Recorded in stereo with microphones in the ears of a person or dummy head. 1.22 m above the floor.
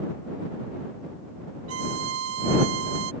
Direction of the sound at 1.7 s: 80° right.